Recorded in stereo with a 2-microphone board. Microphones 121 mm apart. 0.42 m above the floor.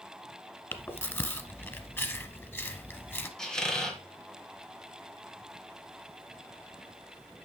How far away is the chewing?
About 1.0 m.